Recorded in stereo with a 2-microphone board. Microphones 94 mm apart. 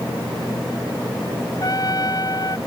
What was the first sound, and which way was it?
A trumpet, 40° left (ahead or behind).